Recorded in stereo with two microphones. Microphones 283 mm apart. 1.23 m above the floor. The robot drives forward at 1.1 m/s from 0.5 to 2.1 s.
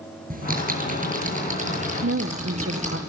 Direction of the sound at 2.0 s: 45° right (ahead or behind).